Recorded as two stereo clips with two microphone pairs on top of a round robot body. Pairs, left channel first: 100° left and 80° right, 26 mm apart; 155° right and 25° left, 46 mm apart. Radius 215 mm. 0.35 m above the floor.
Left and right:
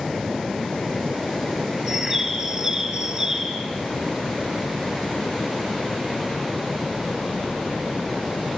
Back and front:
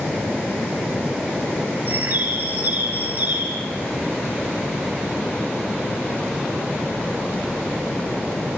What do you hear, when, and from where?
1.9 s a bird: 10° right, 6 m